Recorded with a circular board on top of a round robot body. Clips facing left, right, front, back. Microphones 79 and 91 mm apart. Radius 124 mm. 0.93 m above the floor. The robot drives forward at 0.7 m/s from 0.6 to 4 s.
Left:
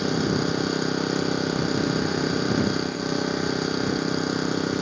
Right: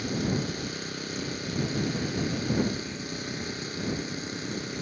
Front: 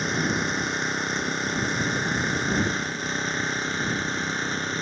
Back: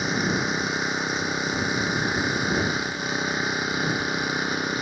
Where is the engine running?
95° left; by 4.8 s 100° left.